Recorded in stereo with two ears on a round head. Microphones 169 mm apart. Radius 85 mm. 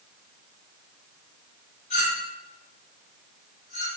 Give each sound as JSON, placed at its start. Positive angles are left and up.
{"t": 1.9, "sound": "a clink", "side_deg": 35, "distance_m": 1.5}